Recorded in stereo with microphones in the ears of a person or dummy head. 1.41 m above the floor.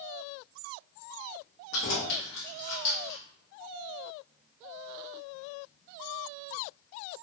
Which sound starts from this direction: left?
Keys jangling, at 1.7 s.